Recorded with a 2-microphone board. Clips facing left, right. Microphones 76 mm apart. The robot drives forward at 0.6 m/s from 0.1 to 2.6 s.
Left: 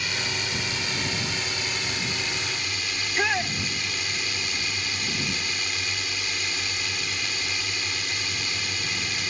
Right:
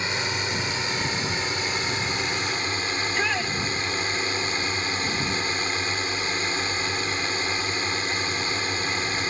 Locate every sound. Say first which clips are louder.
0.0 s a drone: right 3 dB; 30° right (ahead or behind); by 9.3 s 35° right (ahead or behind)
3.0 s a shout: left 2 dB; 10° left (ahead or behind)